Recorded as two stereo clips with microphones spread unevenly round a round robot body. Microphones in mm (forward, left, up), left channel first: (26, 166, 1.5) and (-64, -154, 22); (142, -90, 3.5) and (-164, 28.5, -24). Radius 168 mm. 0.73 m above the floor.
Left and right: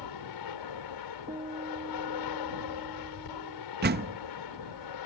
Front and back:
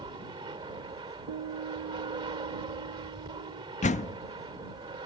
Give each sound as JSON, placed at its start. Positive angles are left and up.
{"t": 0.0, "sound": "an aircraft", "azimuth_deg": 85}
{"t": 1.3, "sound": "a guitar", "azimuth_deg": 180}
{"t": 3.8, "sound": "a door slam", "azimuth_deg": -80}